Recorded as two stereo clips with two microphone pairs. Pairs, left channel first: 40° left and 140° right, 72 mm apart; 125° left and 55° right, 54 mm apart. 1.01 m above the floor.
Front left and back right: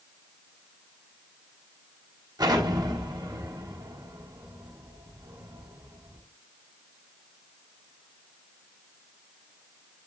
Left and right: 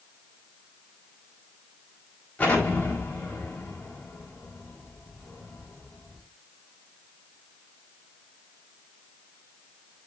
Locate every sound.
2.4 s an explosion: 170° right, 4.5 m